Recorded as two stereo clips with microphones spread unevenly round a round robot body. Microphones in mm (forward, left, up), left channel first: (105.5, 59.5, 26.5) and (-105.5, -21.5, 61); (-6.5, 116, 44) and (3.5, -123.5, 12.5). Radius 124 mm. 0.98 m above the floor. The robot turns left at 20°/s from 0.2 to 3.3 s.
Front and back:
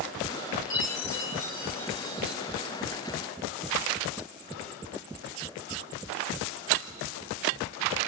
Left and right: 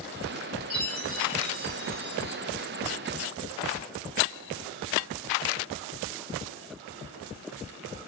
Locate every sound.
0.7 s a chime: 35° right, 4.5 m; by 2.4 s 65° right, 4.5 m